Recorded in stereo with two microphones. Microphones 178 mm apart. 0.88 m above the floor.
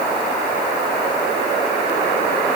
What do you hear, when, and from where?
Only background noise.